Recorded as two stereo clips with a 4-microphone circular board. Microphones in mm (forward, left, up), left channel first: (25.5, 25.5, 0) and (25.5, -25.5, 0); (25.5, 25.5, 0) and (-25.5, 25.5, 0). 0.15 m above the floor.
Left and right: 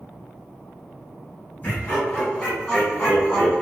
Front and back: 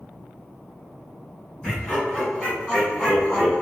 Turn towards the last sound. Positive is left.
turn(degrees=-140)